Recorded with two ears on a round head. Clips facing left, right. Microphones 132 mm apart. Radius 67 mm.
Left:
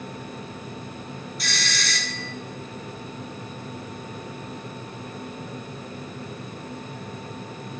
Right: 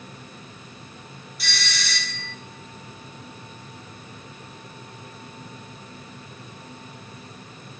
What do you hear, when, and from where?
1.4 s a doorbell: centre (ahead or behind), 2 m